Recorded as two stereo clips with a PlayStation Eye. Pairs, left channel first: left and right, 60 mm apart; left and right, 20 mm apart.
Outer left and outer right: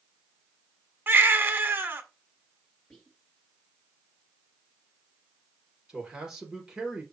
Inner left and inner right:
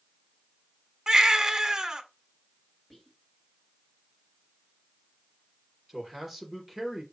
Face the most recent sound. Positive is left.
turn(degrees=-10)  # may be behind; listen again after turning